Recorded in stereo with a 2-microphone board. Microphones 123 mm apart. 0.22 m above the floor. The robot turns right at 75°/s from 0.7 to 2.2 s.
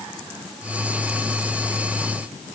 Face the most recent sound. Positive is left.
No sound to turn to.